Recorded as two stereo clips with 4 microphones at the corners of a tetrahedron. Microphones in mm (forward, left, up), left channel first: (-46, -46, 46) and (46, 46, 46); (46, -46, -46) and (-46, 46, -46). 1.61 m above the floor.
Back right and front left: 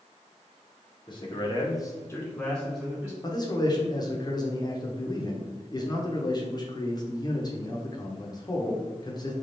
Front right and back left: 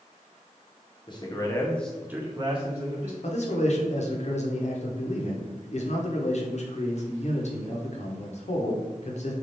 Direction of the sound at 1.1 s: 90° right.